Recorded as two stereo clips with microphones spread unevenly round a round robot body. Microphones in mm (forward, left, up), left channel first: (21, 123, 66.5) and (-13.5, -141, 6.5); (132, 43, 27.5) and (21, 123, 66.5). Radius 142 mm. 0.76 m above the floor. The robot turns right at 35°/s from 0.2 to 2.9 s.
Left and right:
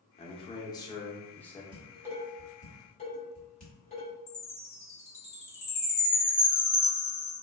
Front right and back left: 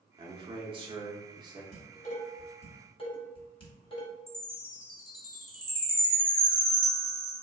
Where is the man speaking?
150° left, 0.7 m; by 1.6 s 160° right, 0.7 m.